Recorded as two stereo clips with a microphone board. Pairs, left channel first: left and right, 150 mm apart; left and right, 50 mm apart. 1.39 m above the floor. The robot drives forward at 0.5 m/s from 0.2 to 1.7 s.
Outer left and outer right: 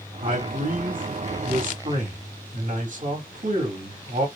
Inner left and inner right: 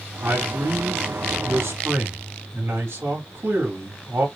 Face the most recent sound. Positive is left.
turn(degrees=-65)  # may be behind; listen again after turning